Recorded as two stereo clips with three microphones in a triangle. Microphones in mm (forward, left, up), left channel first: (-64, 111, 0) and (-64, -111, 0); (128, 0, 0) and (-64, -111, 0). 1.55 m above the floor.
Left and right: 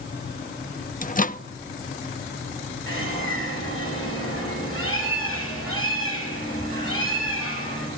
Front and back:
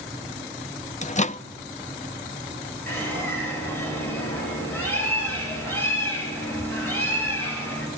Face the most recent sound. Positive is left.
turn(degrees=110)